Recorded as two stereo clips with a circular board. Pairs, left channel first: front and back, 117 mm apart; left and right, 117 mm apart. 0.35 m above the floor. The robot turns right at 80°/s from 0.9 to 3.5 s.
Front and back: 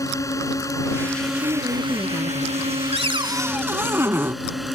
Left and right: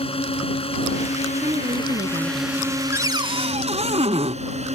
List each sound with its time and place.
0.0 s a drone: 60° left; by 4.8 s 90° right
1.4 s a woman speaking: 150° right; by 2.8 s 35° right
2.9 s a cupboard door: 160° right; by 4.4 s 110° right